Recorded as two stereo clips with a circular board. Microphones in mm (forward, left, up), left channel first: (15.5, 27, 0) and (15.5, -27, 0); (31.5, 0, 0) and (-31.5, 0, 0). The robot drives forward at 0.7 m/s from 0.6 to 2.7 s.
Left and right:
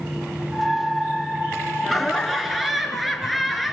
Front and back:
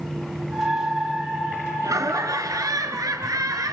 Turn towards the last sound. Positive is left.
turn(degrees=180)